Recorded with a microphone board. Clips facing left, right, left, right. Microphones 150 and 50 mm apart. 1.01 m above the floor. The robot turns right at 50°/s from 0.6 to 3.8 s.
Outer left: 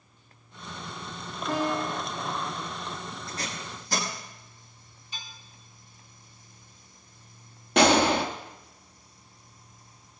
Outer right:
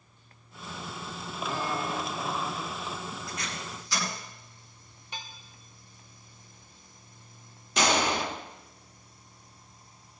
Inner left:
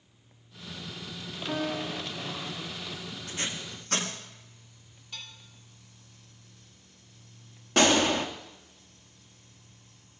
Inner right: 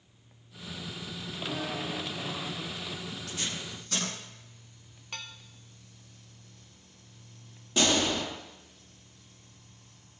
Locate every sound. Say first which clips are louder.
1.5 s a piano: outer left 5 dB, inner left 4 dB; 70° left, 3.5 m; by 2.1 s 100° left, 3.5 m
3.3 s tape being pulled: outer left 1 dB, inner left 3 dB; 30° left (ahead or behind), 9.5 m; by 4.1 s 55° left (ahead or behind), 9.5 m
5.1 s dishes clattering: outer right 3 dB, inner right 3 dB; 75° right (ahead or behind), 1.4 m
7.8 s a gunshot: outer left 6 dB, inner left 4 dB; 70° left (ahead or behind), 1.7 m